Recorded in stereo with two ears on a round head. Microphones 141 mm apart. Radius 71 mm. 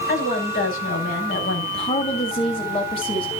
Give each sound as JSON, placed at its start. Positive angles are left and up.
{"t": 0.1, "sound": "a woman speaking", "side_deg": 60, "distance_m": 6.5}
{"t": 1.7, "sound": "a woman speaking", "side_deg": 35, "distance_m": 2.5}